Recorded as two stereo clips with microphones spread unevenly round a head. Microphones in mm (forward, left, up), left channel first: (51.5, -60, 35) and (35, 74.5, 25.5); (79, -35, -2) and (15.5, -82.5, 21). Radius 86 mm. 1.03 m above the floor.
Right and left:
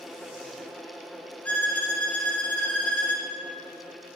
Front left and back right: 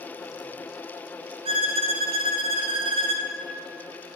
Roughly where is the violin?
Behind.